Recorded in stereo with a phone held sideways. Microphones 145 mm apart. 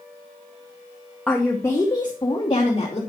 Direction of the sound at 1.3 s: 5° left (ahead or behind).